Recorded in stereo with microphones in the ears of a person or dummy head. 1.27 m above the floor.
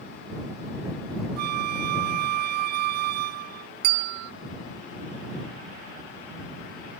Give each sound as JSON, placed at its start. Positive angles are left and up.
{"t": 1.4, "sound": "a flute", "side_deg": -60}
{"t": 3.8, "sound": "a bell", "side_deg": -50}